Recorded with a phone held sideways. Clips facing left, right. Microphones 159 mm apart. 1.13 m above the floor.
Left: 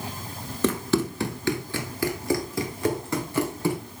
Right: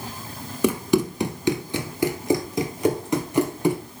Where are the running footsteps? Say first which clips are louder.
Right 3 dB; 10° right (ahead or behind), 1.1 m; by 3.8 s 20° right (ahead or behind), 2.5 m.